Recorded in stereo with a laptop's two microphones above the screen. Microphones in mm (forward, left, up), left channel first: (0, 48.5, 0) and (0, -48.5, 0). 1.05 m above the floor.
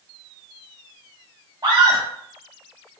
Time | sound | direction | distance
1.6 | a scream | 45° right (ahead or behind) | 0.9 m